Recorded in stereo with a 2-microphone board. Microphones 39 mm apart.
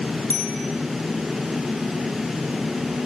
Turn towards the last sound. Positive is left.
turn(degrees=75)  # may be behind; listen again after turning